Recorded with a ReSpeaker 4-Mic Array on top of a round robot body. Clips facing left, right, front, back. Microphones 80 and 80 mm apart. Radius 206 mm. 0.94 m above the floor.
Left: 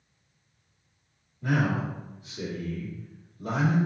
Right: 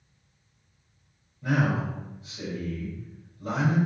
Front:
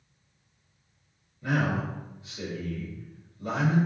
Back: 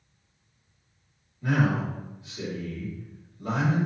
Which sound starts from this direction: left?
A man speaking, at 1.4 s.